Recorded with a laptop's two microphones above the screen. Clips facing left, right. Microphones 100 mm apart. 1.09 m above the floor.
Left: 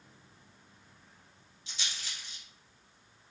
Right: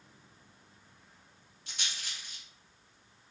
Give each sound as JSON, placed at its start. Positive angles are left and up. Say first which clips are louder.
{"t": 1.7, "sound": "a rattle", "louder": "even", "side_deg": -50, "distance_m": 0.9}